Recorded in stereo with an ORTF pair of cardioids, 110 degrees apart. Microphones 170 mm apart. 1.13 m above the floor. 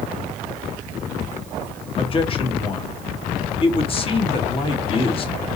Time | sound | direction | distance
2.0 | a man speaking | 35° left | 1.3 m